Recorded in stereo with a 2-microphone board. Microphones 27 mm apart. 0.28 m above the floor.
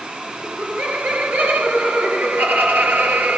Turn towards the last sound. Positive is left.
turn(degrees=-80)